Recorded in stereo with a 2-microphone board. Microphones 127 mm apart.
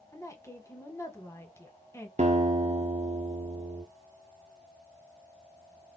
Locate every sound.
0.1 s a woman speaking: 20° left (ahead or behind), 1.3 m
2.2 s a guitar: 60° right (ahead or behind), 0.9 m